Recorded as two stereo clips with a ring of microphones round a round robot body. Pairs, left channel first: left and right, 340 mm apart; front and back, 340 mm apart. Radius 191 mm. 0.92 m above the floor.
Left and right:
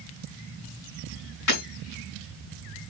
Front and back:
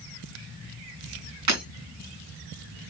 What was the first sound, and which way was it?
Breaking glass, 140° left.